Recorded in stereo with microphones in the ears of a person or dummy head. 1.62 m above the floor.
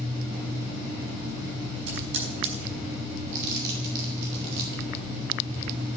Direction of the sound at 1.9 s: 75° right (ahead or behind).